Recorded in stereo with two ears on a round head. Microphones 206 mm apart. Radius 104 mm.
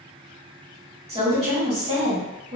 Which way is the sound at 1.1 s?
25° right (ahead or behind).